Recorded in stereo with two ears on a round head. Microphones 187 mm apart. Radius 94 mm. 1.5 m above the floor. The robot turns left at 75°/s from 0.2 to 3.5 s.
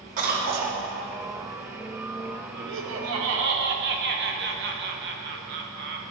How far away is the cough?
About 1.1 m.